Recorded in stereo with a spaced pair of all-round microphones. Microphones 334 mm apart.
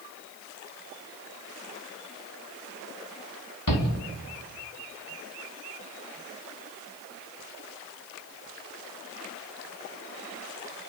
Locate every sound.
3.7 s a shout: 75° left (ahead or behind), 4 m